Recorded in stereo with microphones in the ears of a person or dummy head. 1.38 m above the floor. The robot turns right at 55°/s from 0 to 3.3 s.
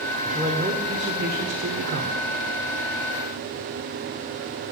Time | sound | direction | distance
0.2 | a man speaking | 175° right | 0.8 m